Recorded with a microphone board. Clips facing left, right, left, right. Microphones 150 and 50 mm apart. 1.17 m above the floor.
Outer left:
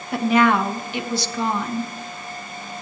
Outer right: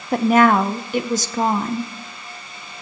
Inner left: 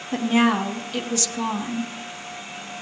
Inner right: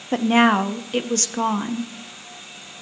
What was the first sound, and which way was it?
A woman speaking, 45° right (ahead or behind).